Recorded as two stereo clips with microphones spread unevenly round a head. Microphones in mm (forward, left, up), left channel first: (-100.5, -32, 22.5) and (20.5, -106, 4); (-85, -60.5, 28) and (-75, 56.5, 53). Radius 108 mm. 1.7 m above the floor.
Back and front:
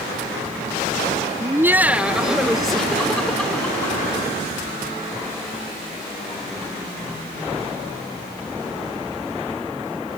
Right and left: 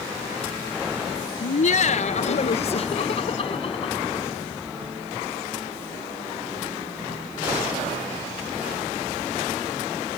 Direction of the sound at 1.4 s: 100° right.